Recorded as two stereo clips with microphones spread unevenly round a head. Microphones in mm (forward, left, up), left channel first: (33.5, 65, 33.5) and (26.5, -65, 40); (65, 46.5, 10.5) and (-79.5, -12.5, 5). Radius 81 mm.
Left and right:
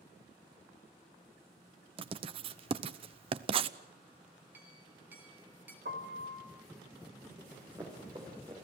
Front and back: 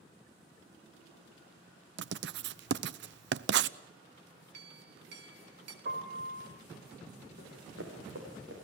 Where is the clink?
170° right, 2.5 m.